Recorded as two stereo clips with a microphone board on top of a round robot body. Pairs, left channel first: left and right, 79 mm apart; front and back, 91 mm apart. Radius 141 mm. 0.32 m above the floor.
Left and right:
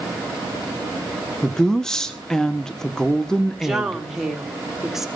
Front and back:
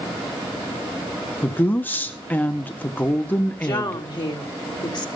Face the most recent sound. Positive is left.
turn(degrees=-5)